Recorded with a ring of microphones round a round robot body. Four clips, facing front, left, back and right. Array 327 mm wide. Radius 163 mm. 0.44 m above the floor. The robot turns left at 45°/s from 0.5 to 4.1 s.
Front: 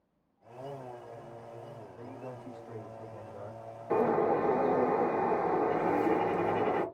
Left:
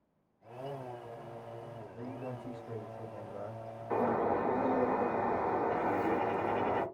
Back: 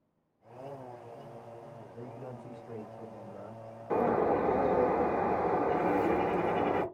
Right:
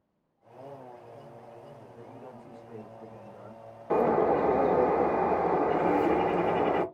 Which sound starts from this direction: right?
A bird, at 3.9 s.